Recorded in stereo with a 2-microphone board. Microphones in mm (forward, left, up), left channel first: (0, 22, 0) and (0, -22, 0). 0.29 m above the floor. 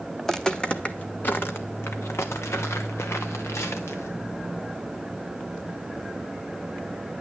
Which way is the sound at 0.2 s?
10° left (ahead or behind).